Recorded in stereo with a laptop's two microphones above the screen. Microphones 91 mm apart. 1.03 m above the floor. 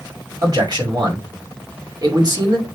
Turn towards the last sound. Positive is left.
turn(degrees=-45)  # may be behind; listen again after turning